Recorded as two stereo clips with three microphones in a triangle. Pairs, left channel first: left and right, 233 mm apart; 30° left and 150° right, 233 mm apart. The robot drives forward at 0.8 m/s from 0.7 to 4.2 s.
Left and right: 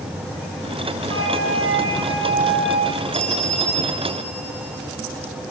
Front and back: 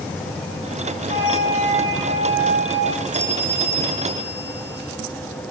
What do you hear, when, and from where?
1.1 s a flute: 80° right, 7.5 m; by 3.0 s 95° right, 7.5 m
3.1 s a bell: 175° left, 3 m